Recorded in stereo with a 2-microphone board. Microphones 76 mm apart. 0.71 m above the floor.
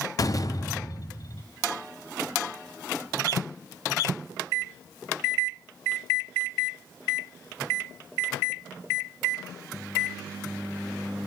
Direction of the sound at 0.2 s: 50° left (ahead or behind).